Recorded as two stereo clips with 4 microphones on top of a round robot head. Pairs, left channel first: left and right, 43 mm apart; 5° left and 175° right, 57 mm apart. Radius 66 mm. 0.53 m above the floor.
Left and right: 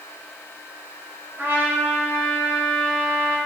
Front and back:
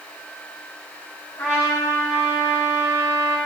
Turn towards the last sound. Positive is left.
turn(degrees=-50)